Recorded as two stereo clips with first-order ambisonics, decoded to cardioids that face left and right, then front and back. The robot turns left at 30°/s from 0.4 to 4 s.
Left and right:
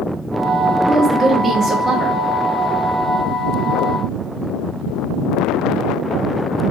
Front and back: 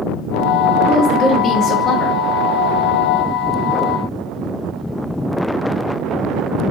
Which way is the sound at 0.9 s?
15° right.